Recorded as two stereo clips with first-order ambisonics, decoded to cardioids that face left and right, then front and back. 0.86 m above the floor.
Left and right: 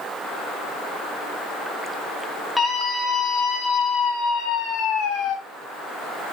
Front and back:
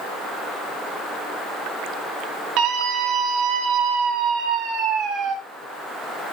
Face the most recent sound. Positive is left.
turn(degrees=125)